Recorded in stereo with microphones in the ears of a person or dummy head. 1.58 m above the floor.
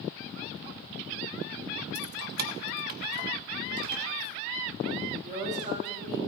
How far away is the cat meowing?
About 3.5 m.